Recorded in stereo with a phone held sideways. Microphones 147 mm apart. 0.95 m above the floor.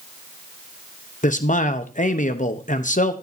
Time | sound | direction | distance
1.2 | a man speaking | 60° left (ahead or behind) | 0.9 m